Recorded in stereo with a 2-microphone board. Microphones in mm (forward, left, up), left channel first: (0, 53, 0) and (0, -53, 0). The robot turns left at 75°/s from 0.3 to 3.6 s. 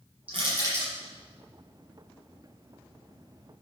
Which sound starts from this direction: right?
Crushing, at 0.3 s.